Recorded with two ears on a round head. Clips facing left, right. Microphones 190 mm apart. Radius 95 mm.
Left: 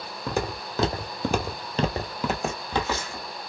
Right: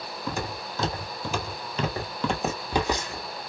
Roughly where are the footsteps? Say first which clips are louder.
Left 4 dB; left.